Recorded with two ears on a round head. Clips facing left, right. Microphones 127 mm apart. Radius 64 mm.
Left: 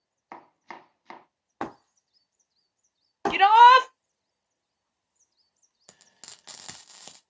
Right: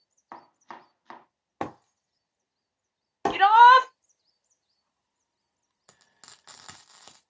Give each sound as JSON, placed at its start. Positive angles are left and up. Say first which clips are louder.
{"t": 0.3, "sound": "chopping", "louder": "left 1 dB", "side_deg": 10, "distance_m": 0.6}
{"t": 1.6, "sound": "breaking glass", "louder": "right 1 dB", "side_deg": -20, "distance_m": 1.9}
{"t": 3.3, "sound": "a shout", "louder": "even", "side_deg": 15, "distance_m": 0.6}
{"t": 5.9, "sound": "frying", "louder": "left 2 dB", "side_deg": 25, "distance_m": 0.8}